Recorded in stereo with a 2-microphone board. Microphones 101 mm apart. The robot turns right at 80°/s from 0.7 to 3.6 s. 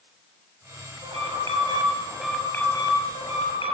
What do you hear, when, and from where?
1.0 s an alarm: 105° right, 6 m; by 3.7 s 100° left, 6 m